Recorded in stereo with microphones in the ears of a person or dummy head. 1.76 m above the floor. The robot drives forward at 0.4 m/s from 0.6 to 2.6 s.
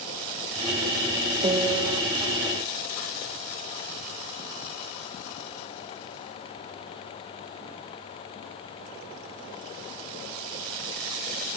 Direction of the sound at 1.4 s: 30° right (ahead or behind).